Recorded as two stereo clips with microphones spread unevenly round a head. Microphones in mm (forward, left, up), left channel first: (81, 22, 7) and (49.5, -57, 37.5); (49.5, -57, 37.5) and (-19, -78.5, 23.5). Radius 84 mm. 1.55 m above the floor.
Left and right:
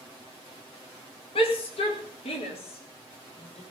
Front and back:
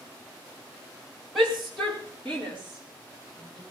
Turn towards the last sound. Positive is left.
turn(degrees=95)